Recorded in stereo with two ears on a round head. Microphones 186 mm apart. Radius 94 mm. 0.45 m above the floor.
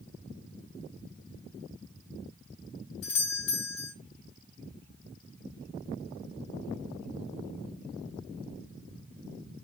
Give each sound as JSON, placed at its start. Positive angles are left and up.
{"t": 3.0, "sound": "a doorbell", "side_deg": 70, "distance_m": 4.0}